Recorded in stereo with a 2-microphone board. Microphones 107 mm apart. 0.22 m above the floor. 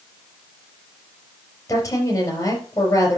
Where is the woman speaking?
30° left (ahead or behind), 4 m.